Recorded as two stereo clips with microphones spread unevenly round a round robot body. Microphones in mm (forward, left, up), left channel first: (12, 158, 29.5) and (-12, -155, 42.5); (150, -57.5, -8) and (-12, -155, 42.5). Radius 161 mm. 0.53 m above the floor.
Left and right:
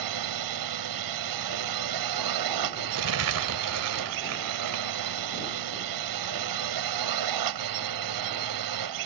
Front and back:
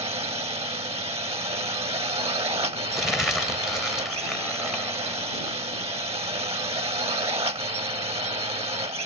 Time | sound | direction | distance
0.0 | a drone | 85° right | ?
2.9 | crumpling | 55° right | ?